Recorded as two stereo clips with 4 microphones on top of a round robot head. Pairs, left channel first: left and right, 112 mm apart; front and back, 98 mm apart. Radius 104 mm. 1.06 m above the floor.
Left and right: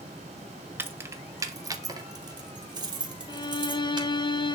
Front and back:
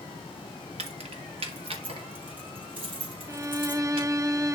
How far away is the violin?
About 0.8 m.